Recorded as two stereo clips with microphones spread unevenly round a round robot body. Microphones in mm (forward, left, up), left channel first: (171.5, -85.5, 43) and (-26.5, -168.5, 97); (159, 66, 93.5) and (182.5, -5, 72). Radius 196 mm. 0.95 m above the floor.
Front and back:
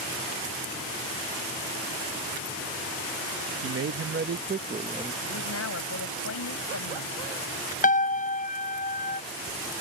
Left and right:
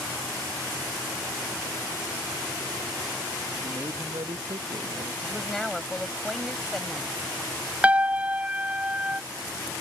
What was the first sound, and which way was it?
A man speaking, 135° right.